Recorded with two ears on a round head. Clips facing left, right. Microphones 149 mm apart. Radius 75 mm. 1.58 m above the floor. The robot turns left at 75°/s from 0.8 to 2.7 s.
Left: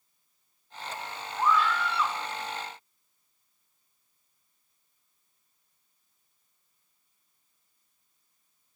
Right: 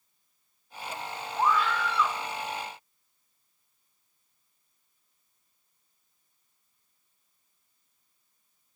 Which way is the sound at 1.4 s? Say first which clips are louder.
Even; 30° right.